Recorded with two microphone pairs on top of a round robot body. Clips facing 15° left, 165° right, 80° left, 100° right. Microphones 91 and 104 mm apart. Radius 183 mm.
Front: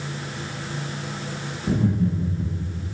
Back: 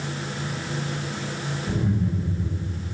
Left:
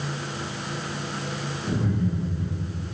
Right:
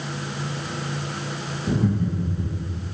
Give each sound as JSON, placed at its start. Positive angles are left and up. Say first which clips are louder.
{"t": 1.7, "sound": "laughter", "louder": "front 4 dB, right 3 dB", "azimuth_deg": -25, "distance_m": 1.5}